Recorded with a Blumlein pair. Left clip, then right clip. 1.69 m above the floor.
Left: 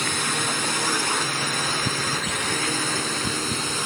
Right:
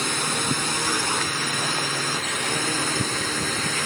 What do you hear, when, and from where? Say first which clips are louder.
0.0 s a drone: left 1 dB; straight ahead